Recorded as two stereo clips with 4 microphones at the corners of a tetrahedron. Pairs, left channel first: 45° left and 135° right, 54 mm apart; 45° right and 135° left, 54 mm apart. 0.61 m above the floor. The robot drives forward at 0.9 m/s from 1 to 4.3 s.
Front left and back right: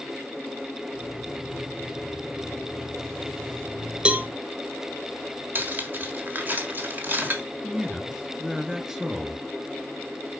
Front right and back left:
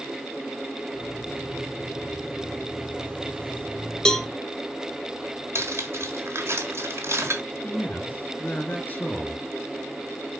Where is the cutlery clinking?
170° left, 1.4 m.